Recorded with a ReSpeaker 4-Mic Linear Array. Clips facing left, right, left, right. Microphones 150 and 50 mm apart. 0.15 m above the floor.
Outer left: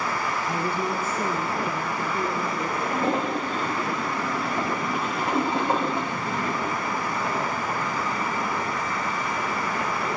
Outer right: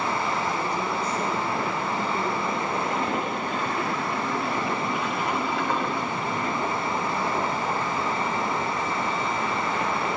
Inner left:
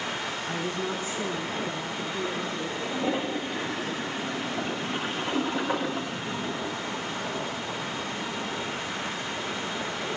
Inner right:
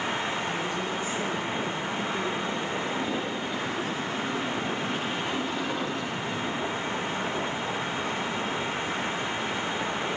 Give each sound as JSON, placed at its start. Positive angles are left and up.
{"t": 0.5, "sound": "a woman speaking", "side_deg": 30, "distance_m": 2.0}
{"t": 2.8, "sound": "a toilet flushing", "side_deg": 30, "distance_m": 7.0}